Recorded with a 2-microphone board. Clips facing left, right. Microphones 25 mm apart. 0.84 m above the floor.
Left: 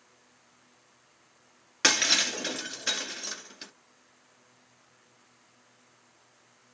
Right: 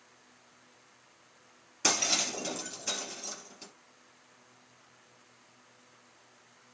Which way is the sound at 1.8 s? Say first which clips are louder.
Left 5 dB; 65° left (ahead or behind).